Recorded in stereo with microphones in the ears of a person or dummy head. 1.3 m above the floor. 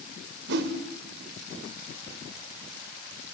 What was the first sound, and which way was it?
A whoosh, 60° right (ahead or behind).